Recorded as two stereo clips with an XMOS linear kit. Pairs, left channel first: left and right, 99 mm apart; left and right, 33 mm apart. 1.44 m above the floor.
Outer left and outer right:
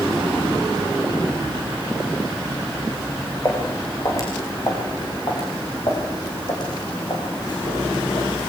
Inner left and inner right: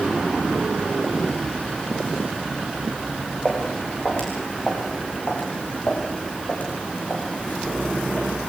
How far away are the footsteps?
About 6.5 m.